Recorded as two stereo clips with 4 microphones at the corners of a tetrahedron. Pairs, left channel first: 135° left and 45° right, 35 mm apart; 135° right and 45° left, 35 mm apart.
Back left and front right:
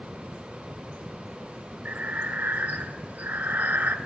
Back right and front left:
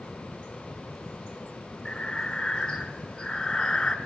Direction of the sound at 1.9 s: 65° right.